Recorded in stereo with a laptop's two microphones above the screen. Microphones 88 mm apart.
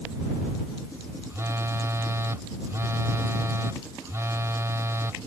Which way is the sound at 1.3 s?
35° right (ahead or behind).